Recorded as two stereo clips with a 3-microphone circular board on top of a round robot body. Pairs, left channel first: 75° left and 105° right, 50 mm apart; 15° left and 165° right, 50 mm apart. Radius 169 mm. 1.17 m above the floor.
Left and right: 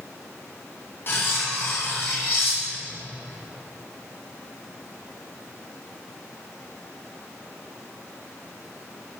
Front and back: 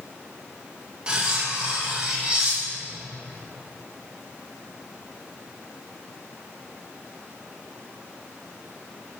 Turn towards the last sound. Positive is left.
turn(degrees=120)